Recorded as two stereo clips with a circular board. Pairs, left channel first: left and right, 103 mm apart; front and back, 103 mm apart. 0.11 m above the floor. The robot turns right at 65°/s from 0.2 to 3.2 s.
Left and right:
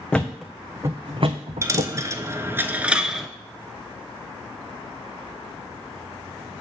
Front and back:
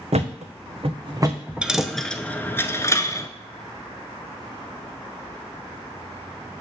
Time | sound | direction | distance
0.1 | a thud | 170° left | 1.1 m
1.6 | a dropped coin | 110° right | 0.7 m